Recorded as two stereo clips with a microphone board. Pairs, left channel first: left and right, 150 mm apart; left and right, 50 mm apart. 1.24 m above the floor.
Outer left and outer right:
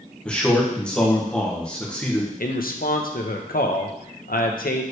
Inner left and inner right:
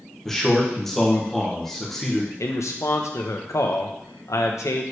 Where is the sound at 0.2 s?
5° left (ahead or behind), 1.3 m.